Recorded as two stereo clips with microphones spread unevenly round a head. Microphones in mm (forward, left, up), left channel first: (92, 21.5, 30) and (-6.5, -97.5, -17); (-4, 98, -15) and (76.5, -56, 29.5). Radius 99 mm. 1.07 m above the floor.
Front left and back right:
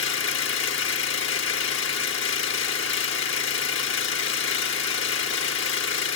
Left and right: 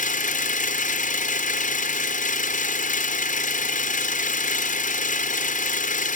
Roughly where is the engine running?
Left.